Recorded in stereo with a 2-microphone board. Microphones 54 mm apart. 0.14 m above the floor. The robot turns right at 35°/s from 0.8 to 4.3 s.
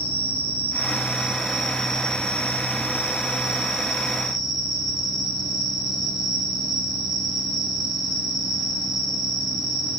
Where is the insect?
35° right, 3.5 m; by 10.0 s 90° left, 3.5 m.